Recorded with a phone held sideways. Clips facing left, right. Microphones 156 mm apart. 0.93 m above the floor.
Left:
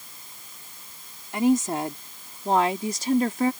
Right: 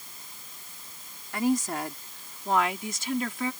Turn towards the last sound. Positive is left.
turn(degrees=45)  # may be behind; listen again after turning